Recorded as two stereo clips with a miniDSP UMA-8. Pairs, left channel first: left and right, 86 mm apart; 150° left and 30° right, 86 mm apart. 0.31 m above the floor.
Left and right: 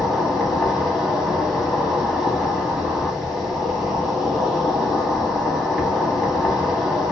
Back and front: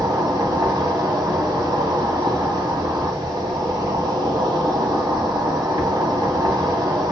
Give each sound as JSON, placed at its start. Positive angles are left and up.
{"t": 0.0, "sound": "an insect", "azimuth_deg": -5, "distance_m": 1.2}